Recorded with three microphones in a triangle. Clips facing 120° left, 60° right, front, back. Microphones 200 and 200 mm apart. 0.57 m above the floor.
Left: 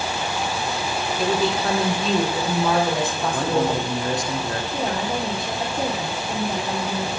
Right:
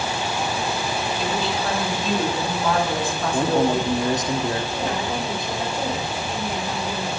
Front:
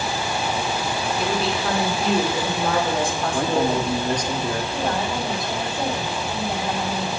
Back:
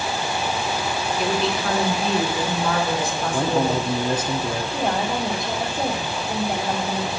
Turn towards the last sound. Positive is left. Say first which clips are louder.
# left 1 dB, back 1 dB
turn(degrees=120)